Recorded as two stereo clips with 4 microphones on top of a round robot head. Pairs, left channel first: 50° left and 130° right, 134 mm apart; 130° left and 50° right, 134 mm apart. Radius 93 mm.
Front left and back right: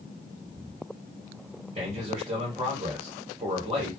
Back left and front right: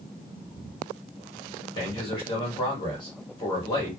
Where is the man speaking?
Straight behind, 3 m.